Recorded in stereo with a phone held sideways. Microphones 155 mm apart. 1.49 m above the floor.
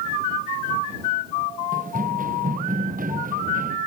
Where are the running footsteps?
60° right (ahead or behind); by 3.8 s 65° right (ahead or behind).